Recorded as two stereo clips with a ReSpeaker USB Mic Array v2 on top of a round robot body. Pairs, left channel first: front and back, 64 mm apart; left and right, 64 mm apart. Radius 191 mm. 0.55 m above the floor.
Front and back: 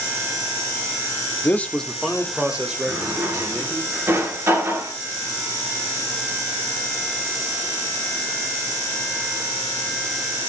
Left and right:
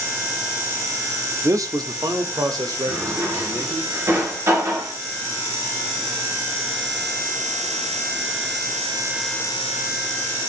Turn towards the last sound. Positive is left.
turn(degrees=-130)